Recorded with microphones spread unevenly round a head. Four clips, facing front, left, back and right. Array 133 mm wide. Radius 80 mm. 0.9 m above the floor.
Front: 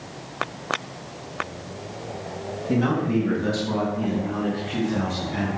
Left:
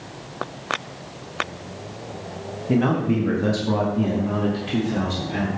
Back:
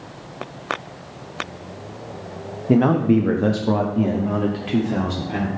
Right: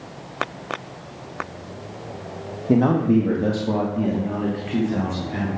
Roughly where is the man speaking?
Behind right.